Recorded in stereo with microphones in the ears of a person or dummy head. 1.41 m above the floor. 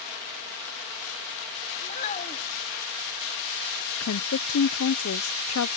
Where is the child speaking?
40° left (ahead or behind).